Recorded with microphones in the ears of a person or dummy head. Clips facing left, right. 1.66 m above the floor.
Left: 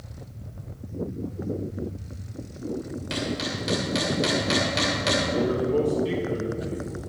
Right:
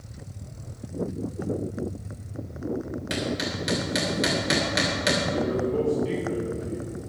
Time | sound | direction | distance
3.1 | hammering | 20° right (ahead or behind) | 2.5 m
5.3 | a man speaking | 50° left (ahead or behind) | 3 m